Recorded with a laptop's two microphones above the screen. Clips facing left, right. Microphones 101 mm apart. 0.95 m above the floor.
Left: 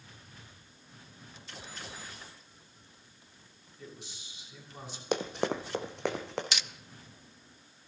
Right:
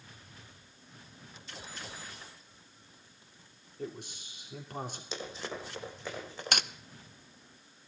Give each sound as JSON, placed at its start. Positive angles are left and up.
{"t": 3.8, "sound": "a man speaking", "side_deg": -50, "distance_m": 3.0}
{"t": 5.1, "sound": "running footsteps", "side_deg": 60, "distance_m": 1.7}
{"t": 6.5, "sound": "cutlery clinking", "side_deg": -50, "distance_m": 0.5}